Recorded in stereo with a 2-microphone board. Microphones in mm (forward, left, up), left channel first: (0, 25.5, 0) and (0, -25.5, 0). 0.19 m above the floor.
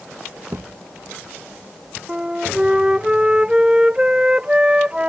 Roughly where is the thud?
Right.